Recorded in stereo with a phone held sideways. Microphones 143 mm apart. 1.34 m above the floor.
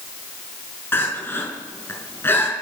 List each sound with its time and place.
0.9 s crying: 15° left (ahead or behind), 5 m